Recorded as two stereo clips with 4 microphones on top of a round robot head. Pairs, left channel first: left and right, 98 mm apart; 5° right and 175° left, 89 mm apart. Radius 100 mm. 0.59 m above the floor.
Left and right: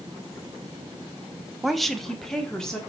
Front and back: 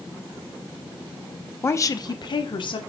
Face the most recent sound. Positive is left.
turn(degrees=10)